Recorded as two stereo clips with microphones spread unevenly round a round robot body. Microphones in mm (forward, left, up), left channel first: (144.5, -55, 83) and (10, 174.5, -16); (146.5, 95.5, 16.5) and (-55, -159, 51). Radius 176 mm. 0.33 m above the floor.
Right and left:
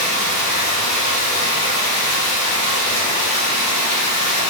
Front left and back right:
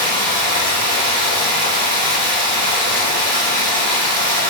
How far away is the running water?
About 1.9 m.